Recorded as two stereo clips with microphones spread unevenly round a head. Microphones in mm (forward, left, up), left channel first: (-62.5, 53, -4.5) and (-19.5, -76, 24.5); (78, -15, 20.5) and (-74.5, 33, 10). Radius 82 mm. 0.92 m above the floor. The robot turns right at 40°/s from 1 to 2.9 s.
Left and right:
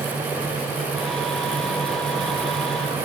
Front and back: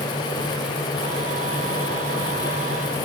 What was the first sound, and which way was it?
Only background noise.